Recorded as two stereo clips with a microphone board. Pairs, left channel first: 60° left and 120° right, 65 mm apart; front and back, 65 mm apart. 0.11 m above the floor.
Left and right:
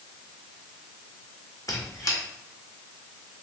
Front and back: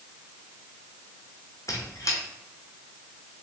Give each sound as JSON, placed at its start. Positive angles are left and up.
{"t": 1.7, "sound": "a squeak", "azimuth_deg": 35, "distance_m": 1.2}